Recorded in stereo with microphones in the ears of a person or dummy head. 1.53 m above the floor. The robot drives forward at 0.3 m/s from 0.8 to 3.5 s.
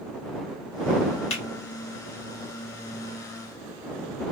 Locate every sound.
1.3 s a finger snap: 35° left (ahead or behind), 1.1 m